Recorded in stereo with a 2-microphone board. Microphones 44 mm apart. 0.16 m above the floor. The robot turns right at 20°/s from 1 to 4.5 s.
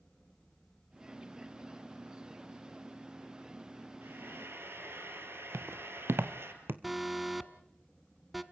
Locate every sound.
4.0 s frying: 60° right (ahead or behind), 2.5 m; by 6.5 s 65° right (ahead or behind), 2.5 m
5.5 s footsteps: 85° right, 1.0 m; by 6.7 s 60° right (ahead or behind), 1.4 m
6.8 s an alarm: centre (ahead or behind), 0.9 m